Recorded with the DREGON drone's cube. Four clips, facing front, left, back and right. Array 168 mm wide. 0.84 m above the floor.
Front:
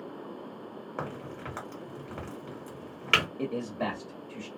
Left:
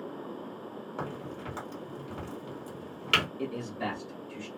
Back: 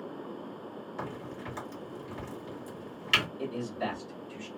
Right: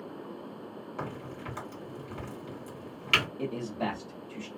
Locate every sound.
1.0 s a crack: 20° left, 1.7 m
3.4 s a man speaking: 20° right, 1.6 m